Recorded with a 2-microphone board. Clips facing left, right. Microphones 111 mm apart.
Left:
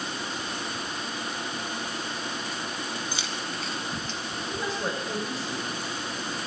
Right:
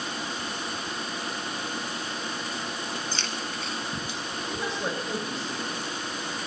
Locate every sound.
3.1 s keys jangling: 15° left (ahead or behind), 1.6 m; by 4.2 s 15° right (ahead or behind), 1.7 m
4.5 s a woman speaking: centre (ahead or behind), 7 m